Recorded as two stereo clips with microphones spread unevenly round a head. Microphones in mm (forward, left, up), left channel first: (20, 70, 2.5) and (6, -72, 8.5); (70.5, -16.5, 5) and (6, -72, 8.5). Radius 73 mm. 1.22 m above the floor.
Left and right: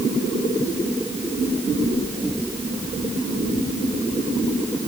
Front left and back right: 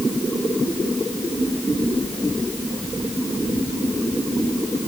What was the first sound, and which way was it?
Only background noise.